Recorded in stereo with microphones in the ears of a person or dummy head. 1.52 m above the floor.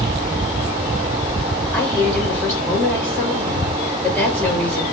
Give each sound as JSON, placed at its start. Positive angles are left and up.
{"t": 1.7, "sound": "a woman speaking", "side_deg": 10, "distance_m": 1.7}